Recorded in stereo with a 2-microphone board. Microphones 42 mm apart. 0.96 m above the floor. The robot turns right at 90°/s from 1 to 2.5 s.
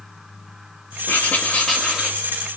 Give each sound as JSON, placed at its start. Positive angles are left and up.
{"t": 1.1, "sound": "writing", "azimuth_deg": 110, "distance_m": 2.5}